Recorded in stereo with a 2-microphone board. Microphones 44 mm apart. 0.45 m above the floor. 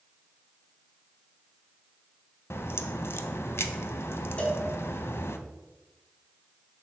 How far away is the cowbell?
About 1.2 m.